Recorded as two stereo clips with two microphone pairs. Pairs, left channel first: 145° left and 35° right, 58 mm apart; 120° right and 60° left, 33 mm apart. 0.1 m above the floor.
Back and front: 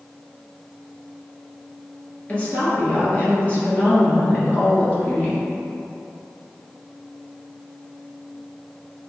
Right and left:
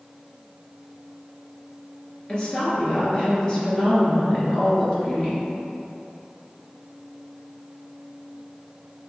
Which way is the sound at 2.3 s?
165° right.